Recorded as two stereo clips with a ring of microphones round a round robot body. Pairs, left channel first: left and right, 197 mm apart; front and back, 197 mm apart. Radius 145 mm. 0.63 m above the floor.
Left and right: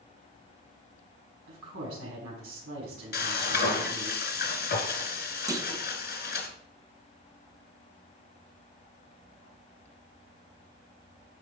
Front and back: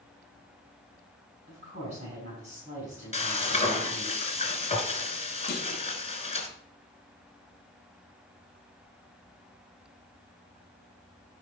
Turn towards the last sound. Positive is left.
turn(degrees=-20)